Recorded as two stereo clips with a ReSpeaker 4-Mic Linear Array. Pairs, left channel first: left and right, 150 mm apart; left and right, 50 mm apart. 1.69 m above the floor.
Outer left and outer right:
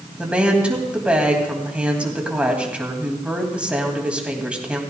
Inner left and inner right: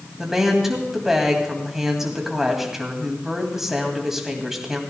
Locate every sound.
0.2 s a woman speaking: 10° right (ahead or behind), 2 m